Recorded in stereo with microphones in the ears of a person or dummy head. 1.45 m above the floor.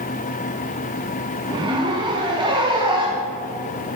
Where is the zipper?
20° right (ahead or behind), 1.4 m.